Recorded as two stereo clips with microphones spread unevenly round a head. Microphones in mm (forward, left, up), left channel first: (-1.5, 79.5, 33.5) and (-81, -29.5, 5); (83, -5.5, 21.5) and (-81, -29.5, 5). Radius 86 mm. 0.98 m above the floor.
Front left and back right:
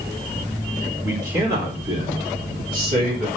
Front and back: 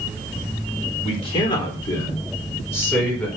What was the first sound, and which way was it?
A man speaking, 50° right.